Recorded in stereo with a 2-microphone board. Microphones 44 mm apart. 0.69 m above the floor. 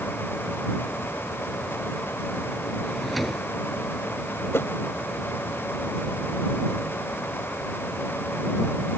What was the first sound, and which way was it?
A drawer, 5° left (ahead or behind).